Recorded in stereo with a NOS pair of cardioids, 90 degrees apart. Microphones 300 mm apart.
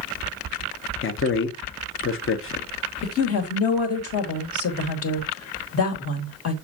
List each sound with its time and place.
1.0 s a man speaking: 45° left, 1.1 m
3.0 s a woman speaking: 50° left, 2.5 m